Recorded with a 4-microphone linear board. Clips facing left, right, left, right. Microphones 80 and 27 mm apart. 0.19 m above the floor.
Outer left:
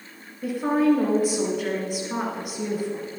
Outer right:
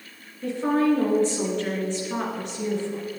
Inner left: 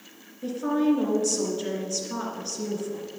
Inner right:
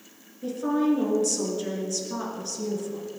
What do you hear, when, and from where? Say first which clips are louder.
0.4 s a woman speaking: outer left 1 dB, even; 10° left (ahead or behind), 2.5 m